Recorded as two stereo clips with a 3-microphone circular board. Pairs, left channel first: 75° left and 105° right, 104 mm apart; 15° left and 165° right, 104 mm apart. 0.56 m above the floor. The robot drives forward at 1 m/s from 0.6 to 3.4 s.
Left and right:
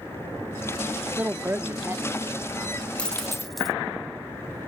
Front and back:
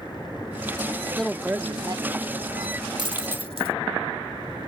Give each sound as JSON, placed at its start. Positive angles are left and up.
{"t": 1.1, "sound": "a woman speaking", "azimuth_deg": -55}
{"t": 3.0, "sound": "a dropped coin", "azimuth_deg": 150}